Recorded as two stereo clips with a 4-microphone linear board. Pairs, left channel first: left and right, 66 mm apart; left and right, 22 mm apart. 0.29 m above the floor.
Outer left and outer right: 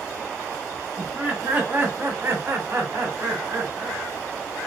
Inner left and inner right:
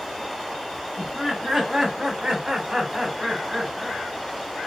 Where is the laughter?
20° right (ahead or behind), 3 m; by 4.0 s 50° right (ahead or behind), 2 m.